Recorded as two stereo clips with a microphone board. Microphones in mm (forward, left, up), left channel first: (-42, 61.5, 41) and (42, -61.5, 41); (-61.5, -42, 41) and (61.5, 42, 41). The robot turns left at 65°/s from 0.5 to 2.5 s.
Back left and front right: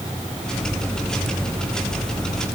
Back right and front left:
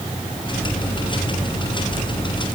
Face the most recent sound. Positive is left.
No sound to turn to.